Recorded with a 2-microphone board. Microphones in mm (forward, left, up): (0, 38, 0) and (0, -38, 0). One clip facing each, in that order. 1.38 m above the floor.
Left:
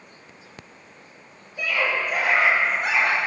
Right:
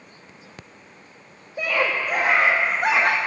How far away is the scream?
About 2.5 m.